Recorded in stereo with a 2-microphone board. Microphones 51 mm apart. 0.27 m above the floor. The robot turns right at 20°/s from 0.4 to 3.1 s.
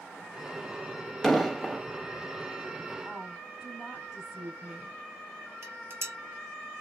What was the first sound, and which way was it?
An explosion, 5° left (ahead or behind).